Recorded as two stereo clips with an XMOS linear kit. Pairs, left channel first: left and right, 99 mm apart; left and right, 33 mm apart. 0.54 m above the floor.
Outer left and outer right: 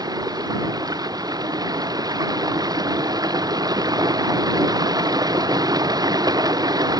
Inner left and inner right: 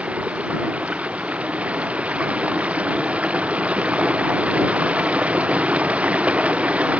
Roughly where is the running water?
Right.